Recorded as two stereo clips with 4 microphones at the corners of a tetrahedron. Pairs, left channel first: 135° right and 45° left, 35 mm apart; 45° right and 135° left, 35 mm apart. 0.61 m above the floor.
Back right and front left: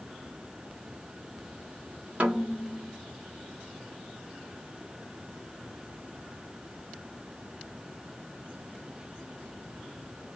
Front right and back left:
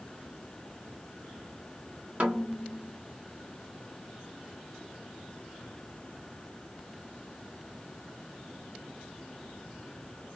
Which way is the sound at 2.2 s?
90° left.